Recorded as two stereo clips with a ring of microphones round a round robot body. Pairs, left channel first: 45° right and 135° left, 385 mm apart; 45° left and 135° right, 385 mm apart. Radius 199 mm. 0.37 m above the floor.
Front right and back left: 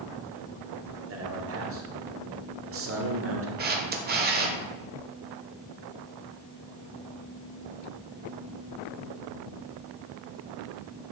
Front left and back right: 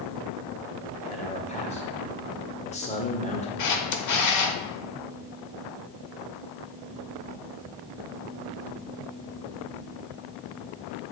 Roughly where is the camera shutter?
Left.